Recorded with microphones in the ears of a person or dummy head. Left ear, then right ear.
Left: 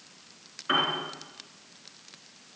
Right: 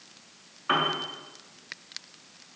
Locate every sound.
0.7 s a piano: 20° right (ahead or behind), 4 m